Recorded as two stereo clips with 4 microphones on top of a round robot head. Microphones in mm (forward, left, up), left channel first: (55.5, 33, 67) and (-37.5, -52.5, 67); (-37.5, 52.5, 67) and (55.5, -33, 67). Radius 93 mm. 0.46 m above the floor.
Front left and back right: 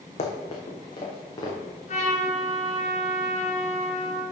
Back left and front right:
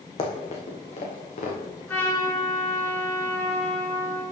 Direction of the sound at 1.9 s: 65° left.